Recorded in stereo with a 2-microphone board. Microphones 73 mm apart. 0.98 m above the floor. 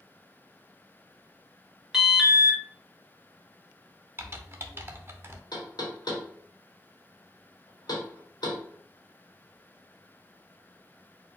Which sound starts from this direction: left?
Knocking, at 5.5 s.